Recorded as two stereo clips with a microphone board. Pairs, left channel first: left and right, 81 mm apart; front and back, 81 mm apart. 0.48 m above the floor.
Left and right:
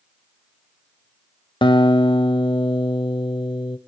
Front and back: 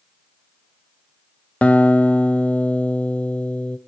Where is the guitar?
75° left, 0.8 m.